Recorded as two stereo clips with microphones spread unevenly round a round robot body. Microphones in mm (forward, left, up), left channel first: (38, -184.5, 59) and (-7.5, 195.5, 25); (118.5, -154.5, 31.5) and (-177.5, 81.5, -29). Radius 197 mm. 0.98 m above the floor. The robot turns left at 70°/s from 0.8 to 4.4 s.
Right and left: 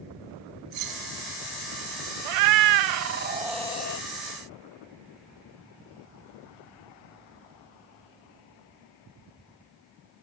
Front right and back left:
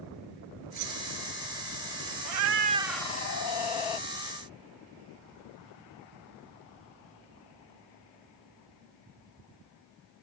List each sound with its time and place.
0.7 s keys jangling: 90° left; by 1.0 s 75° left
2.2 s a cat meowing: 95° left; by 4.0 s 30° right